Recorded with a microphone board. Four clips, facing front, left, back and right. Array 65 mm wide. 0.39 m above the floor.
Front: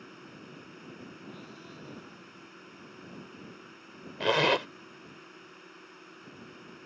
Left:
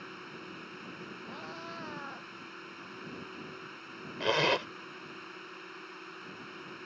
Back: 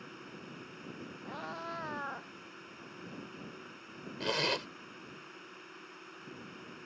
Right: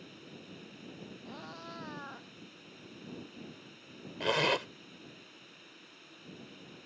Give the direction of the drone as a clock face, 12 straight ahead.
9 o'clock.